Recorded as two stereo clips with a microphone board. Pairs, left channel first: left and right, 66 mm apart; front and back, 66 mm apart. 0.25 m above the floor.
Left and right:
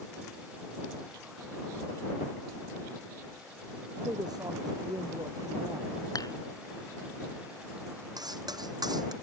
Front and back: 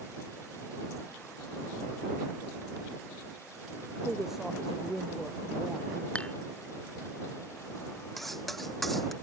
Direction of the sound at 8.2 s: 90° right.